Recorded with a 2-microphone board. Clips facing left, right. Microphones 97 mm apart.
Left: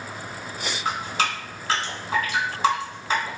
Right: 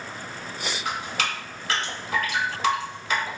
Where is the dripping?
35° left (ahead or behind), 1.2 m.